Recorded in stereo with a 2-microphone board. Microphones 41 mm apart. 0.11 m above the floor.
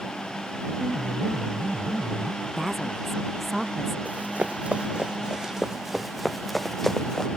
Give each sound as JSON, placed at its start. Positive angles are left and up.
{"t": 0.8, "sound": "a piano", "side_deg": -20}
{"t": 2.4, "sound": "a woman speaking", "side_deg": -10}
{"t": 4.0, "sound": "running footsteps", "side_deg": -40}